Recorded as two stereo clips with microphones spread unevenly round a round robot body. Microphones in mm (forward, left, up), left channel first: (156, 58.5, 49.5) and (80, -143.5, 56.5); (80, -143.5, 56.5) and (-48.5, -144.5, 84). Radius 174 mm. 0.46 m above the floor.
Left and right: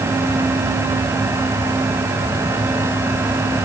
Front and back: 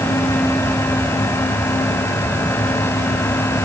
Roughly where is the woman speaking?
I don't hear a woman speaking.